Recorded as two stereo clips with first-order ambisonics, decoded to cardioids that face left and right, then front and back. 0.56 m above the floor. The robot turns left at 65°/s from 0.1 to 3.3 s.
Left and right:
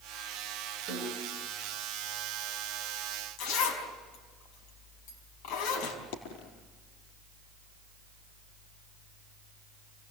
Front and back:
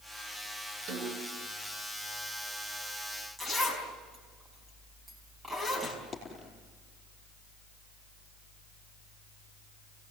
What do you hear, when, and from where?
0.9 s a snare drum: 135° right, 5 m; by 1.5 s 170° right, 5 m
3.4 s a zipper: 100° left, 5 m
6.1 s a dropped coin: 85° left, 4.5 m